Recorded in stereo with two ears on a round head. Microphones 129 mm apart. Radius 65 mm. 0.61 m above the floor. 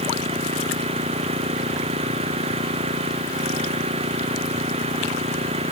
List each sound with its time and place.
0.0 s an engine running: 45° right (ahead or behind)